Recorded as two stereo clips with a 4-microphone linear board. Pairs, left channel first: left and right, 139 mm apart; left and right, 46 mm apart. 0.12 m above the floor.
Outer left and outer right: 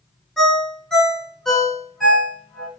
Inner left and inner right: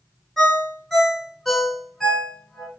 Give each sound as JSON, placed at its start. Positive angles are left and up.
{"t": 0.4, "sound": "a ringtone", "side_deg": 5, "distance_m": 0.6}